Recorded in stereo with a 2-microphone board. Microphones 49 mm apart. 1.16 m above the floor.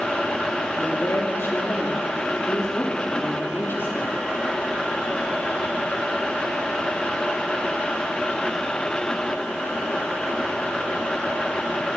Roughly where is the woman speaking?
Left.